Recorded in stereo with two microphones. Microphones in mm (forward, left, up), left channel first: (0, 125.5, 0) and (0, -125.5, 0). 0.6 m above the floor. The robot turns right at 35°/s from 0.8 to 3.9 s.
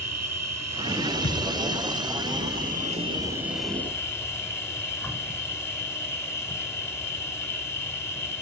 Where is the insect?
100° right, 1.1 m; by 8.4 s 10° left, 1.1 m.